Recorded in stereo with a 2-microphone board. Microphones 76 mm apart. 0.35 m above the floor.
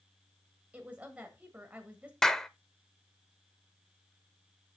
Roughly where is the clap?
Centre.